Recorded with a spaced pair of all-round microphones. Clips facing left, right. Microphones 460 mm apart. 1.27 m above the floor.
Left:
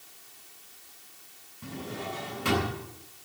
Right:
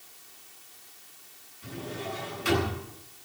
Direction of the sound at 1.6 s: 70° left (ahead or behind).